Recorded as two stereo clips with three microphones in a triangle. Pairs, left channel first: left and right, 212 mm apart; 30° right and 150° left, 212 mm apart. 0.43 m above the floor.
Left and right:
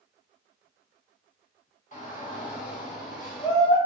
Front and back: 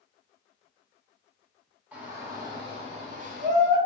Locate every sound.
1.9 s a shout: 70° left, 1.3 m; by 3.8 s 130° left, 1.6 m